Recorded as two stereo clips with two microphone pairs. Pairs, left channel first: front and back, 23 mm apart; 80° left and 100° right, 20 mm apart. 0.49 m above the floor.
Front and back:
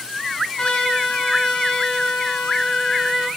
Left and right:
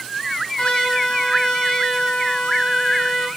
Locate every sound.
0.6 s a trumpet: 35° left, 5 m